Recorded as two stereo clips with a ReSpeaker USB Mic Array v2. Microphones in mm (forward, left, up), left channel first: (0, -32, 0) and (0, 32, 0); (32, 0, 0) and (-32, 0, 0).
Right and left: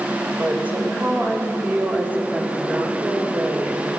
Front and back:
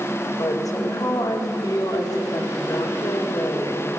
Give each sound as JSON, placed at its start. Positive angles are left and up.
{"t": 0.4, "sound": "a woman speaking", "azimuth_deg": 25, "distance_m": 3.0}